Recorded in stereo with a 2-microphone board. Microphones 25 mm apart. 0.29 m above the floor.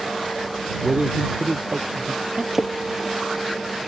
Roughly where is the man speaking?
Right.